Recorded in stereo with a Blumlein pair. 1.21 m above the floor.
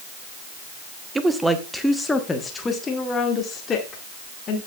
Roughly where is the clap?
No clap in this recording.